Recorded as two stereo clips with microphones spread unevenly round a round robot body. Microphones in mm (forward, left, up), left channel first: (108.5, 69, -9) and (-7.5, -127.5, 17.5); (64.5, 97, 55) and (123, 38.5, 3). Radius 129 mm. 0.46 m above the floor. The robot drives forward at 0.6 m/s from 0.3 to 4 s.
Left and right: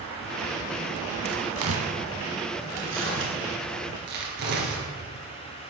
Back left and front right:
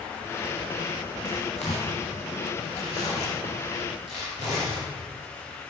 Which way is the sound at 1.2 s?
160° right.